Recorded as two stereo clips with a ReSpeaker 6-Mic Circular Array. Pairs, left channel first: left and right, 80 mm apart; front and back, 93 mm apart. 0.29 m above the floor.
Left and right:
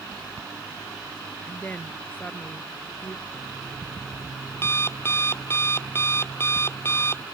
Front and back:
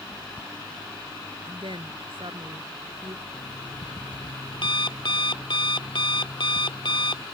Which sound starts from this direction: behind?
A woman speaking, at 1.4 s.